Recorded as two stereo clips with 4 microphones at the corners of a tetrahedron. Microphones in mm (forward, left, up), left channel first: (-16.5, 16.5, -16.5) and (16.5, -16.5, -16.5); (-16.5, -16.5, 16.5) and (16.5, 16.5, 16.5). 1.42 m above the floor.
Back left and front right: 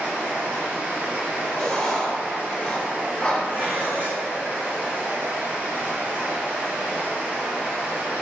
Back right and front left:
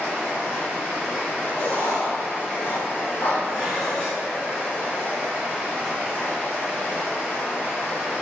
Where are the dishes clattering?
25° right, 1.7 m.